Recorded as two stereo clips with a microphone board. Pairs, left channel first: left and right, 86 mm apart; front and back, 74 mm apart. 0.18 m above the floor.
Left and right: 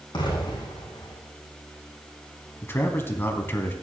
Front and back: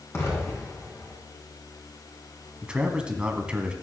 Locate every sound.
0.1 s an explosion: 55° left, 4 m
2.6 s a man speaking: 120° left, 1.5 m